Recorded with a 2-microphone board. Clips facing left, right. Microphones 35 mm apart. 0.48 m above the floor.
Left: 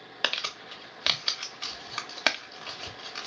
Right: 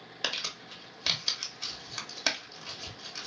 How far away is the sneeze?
No sneeze in this recording.